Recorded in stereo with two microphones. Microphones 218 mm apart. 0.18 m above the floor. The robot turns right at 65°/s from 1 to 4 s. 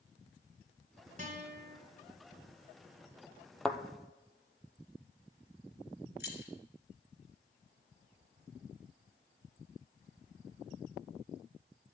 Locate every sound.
1.2 s a guitar: 135° right, 2.5 m; by 1.8 s 95° right, 2.5 m
3.6 s a thud: centre (ahead or behind), 0.6 m; by 3.8 s 5° right (ahead or behind), 0.6 m
6.2 s keys jangling: 50° left (ahead or behind), 1.7 m